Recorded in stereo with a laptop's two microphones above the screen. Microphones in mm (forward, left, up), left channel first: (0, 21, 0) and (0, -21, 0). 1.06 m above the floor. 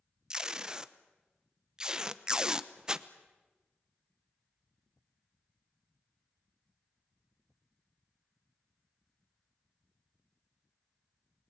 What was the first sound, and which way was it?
Tape being pulled, 20° right (ahead or behind).